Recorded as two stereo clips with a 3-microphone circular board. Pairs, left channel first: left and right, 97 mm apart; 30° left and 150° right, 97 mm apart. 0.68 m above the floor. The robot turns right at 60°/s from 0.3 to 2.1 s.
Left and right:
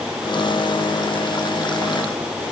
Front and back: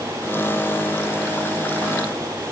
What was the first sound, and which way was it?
Only background noise.